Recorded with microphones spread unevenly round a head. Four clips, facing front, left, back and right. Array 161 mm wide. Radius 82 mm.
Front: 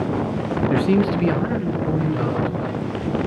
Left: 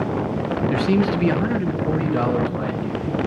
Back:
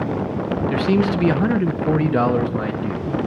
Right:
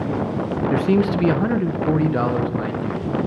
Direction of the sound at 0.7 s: 50° right.